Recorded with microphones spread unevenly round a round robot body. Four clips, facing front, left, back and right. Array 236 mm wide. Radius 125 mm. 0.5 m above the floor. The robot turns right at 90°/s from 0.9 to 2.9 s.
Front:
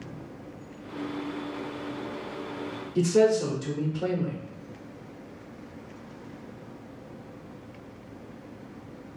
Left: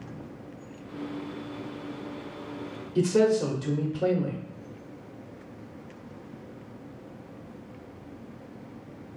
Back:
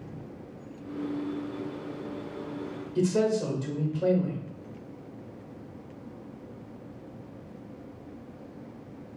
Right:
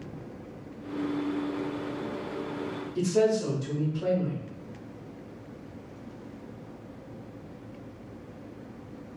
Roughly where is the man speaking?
Ahead left.